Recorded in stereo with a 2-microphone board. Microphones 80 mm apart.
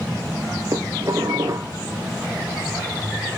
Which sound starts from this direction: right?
Dishes clattering, at 0.7 s.